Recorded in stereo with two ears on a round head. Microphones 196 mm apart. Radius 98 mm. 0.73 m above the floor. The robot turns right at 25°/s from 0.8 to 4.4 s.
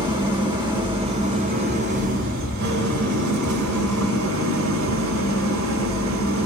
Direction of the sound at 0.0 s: 155° right.